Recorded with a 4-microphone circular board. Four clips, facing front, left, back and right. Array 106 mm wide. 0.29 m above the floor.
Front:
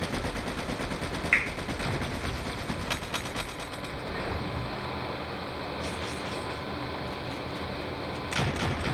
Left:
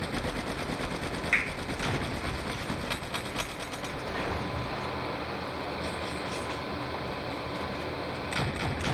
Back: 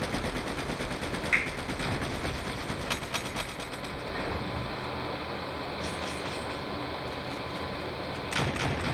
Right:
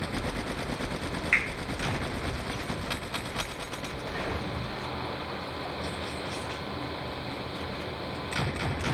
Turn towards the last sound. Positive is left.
turn(degrees=-35)